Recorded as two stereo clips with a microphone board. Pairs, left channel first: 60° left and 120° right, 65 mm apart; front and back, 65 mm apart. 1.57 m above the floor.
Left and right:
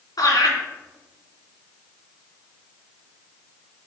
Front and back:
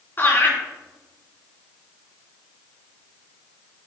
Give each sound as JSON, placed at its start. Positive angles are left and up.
{"t": 0.2, "sound": "laughter", "azimuth_deg": 55, "distance_m": 3.5}